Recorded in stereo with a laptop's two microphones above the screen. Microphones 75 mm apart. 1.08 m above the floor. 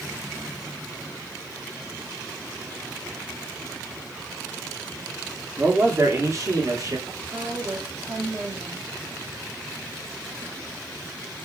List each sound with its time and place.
5.6 s a man speaking: 25° right (ahead or behind), 1.6 m; by 7.0 s 50° right (ahead or behind), 3 m
7.1 s a woman speaking: 35° right (ahead or behind), 2.0 m